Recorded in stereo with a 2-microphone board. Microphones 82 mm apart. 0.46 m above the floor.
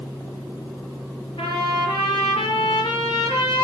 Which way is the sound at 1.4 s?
85° left.